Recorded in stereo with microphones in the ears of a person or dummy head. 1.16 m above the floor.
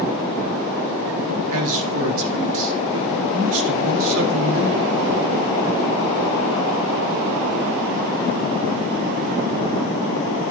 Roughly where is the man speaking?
Right.